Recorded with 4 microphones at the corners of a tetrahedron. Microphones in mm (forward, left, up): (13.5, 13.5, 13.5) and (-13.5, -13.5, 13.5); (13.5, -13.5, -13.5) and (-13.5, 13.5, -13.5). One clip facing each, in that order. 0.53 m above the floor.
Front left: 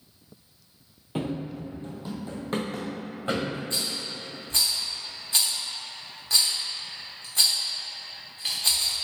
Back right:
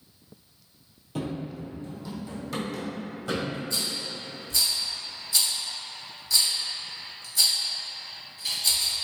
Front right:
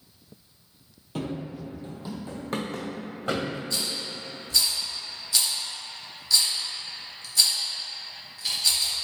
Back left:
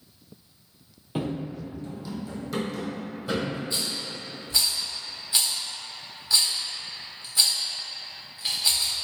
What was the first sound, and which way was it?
Running footsteps, 75° left.